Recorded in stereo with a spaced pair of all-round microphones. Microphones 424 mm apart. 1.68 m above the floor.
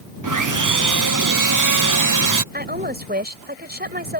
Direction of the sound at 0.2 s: 45° right (ahead or behind).